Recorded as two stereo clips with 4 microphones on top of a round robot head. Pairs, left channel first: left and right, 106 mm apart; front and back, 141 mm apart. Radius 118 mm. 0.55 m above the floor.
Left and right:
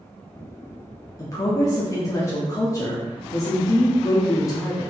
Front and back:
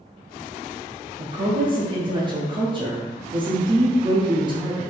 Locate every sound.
1.2 s a woman speaking: 135° left, 1.0 m